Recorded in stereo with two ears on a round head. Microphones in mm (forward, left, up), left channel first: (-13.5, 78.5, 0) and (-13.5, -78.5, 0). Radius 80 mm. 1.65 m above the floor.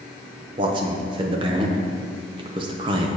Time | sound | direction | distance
0.6 | a man speaking | 25° right (ahead or behind) | 1.1 m